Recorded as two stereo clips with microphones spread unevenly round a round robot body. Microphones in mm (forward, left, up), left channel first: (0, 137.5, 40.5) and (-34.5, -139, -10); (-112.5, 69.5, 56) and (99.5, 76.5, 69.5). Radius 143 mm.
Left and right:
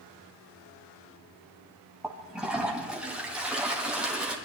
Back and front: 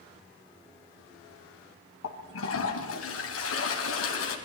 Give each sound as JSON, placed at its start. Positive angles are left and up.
{"t": 2.0, "sound": "a toilet flushing", "azimuth_deg": 180, "distance_m": 3.5}